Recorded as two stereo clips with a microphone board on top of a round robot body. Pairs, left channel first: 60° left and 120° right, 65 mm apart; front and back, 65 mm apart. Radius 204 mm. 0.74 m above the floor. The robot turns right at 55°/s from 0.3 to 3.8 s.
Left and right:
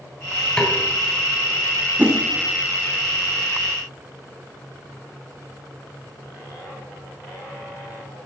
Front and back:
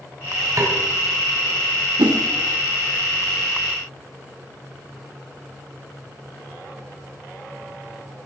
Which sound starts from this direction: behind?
A whoosh, at 2.0 s.